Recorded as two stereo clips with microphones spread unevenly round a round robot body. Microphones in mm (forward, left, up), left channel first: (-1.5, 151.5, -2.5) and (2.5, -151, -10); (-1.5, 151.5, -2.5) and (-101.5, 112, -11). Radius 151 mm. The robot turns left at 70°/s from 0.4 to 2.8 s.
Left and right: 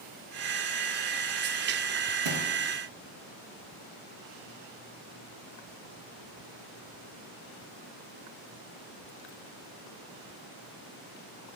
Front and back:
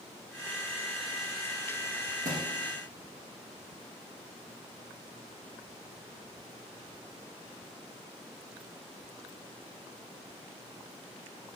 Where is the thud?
110° right, 1.6 m; by 2.5 s 125° right, 1.6 m.